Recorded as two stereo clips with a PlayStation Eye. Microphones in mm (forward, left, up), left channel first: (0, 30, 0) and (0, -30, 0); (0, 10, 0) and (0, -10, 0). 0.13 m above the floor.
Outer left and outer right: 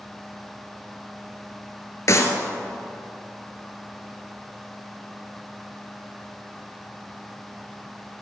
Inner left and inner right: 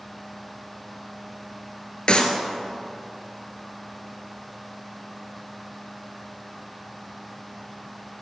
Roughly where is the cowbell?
No cowbell in this recording.